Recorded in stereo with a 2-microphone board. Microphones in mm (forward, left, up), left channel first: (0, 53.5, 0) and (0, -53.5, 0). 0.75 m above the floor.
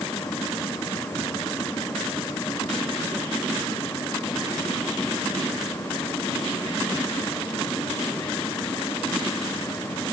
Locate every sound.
Only background noise.